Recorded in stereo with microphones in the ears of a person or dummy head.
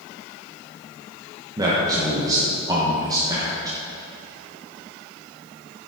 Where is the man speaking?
20° right (ahead or behind), 1.1 m.